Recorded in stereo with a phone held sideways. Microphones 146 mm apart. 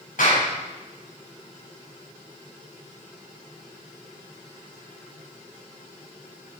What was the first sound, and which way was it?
A clap, 75° left (ahead or behind).